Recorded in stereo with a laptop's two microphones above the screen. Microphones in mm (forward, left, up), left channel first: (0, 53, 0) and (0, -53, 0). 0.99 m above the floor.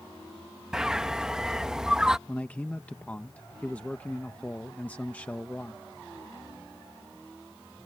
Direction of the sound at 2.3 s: 15° left (ahead or behind).